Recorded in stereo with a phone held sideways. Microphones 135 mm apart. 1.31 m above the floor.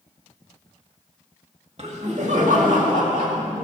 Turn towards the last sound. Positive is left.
turn(degrees=-85)